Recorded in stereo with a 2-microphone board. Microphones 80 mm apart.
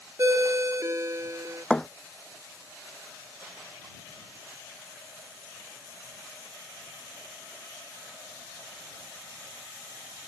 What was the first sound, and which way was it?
A ringtone, 40° right (ahead or behind).